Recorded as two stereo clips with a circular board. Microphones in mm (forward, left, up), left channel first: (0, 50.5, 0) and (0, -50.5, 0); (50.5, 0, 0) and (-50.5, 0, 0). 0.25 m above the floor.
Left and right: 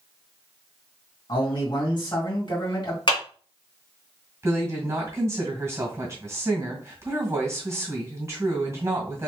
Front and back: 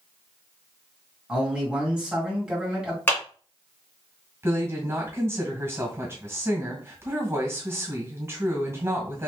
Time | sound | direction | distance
1.3 | a man speaking | 100° left | 2 m
3.1 | a clap | 65° left | 2.5 m
4.4 | a woman speaking | 135° right | 1.8 m